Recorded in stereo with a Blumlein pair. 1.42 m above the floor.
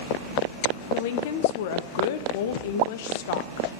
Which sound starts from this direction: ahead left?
A woman speaking, at 0.9 s.